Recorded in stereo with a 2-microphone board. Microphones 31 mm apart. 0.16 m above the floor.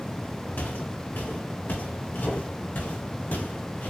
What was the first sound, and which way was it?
Footsteps, 85° left.